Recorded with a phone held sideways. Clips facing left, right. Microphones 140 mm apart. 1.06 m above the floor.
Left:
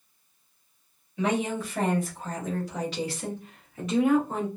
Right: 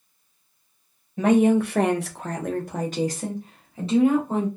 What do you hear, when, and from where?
1.2 s a woman speaking: 45° right (ahead or behind), 0.6 m; by 4.5 s 25° right (ahead or behind), 1.4 m